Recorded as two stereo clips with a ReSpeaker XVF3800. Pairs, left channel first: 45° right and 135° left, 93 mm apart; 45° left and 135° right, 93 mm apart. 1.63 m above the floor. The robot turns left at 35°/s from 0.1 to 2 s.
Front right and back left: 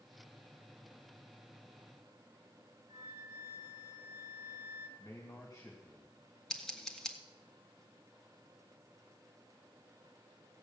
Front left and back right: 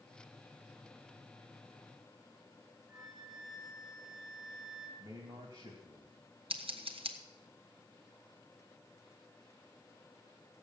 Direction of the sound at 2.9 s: 140° left.